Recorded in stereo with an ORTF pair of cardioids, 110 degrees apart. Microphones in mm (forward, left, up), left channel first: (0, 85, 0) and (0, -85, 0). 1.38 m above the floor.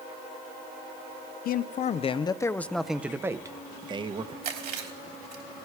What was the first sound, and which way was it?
A man speaking, 60° left.